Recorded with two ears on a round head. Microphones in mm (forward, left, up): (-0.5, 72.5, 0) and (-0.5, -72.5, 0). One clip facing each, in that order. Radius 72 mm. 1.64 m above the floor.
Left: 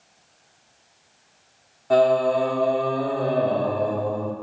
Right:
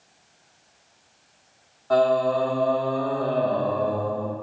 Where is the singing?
20° left (ahead or behind), 1.6 m.